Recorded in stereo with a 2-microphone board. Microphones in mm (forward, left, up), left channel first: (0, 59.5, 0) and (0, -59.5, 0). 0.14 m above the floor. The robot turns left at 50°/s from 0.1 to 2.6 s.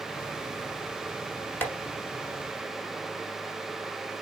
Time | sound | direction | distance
1.6 | tapping | 15° left (ahead or behind) | 1.2 m